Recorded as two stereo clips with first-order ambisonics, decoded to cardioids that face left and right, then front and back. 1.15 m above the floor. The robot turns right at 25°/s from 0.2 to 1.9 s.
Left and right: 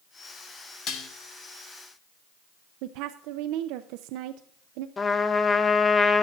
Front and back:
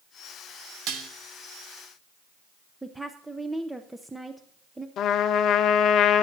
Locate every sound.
0.9 s dishes clattering: 145° left, 1.4 m; by 1.1 s 150° left, 1.4 m
2.8 s a woman speaking: 95° right, 0.5 m
5.0 s a trumpet: 25° left, 0.8 m